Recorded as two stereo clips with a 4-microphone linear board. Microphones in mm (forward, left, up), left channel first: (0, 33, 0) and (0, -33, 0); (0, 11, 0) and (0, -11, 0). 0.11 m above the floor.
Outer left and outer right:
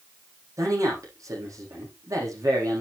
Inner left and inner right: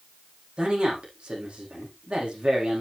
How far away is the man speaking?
About 7.5 m.